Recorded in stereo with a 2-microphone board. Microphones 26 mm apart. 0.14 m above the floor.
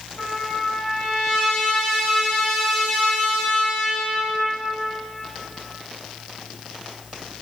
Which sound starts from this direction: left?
A trumpet, at 0.2 s.